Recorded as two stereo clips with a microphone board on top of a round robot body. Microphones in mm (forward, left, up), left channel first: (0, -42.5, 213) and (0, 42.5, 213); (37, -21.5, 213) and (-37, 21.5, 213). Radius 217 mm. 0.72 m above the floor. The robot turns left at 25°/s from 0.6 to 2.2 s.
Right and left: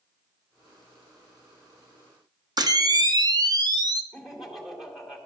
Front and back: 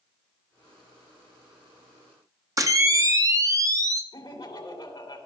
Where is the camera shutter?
110° left, 1.0 m.